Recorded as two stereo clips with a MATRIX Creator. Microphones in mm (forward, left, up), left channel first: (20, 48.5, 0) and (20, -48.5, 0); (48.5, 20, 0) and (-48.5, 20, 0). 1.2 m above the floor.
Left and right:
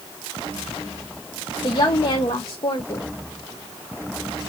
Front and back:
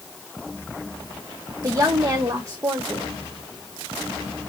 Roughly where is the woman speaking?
Behind left.